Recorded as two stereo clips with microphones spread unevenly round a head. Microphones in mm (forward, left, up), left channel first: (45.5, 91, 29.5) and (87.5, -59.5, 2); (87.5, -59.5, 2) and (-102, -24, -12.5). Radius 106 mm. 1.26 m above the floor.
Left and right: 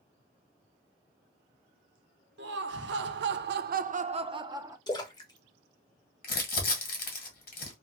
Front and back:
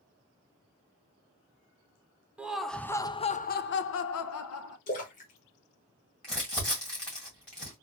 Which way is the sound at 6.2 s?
75° left.